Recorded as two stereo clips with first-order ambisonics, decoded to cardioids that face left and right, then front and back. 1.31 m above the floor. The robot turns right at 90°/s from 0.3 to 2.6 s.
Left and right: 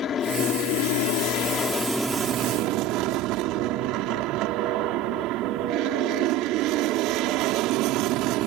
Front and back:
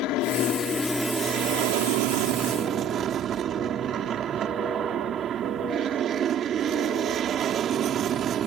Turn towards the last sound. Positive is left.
turn(degrees=-120)